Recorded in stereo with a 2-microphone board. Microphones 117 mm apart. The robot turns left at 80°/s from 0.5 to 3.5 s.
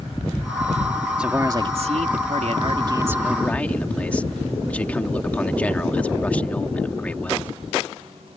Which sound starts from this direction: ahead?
A man speaking, at 1.2 s.